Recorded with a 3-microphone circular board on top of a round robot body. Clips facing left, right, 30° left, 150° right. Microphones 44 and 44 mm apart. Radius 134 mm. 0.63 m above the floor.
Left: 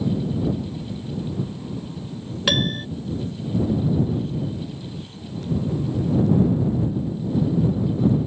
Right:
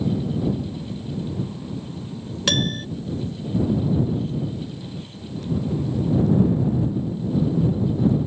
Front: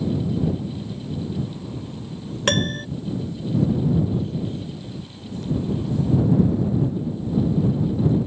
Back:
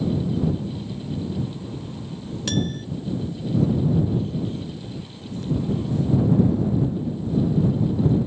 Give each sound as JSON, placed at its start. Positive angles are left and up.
{"t": 2.5, "sound": "a piano", "azimuth_deg": 15}